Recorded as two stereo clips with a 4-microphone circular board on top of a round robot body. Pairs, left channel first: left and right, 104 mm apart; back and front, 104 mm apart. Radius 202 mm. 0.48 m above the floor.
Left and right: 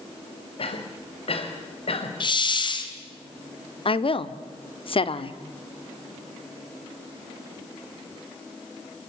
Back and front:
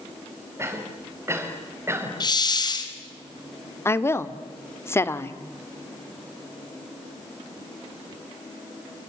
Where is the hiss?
130° left, 2.5 m.